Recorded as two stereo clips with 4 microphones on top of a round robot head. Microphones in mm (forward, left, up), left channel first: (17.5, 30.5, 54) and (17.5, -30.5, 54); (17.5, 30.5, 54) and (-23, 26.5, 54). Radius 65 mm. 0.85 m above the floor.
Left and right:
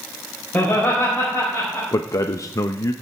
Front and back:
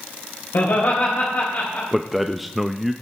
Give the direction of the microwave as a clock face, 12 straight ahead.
No microwave in this recording.